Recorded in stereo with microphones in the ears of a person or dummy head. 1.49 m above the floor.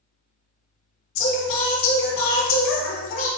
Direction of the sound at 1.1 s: 75° left (ahead or behind).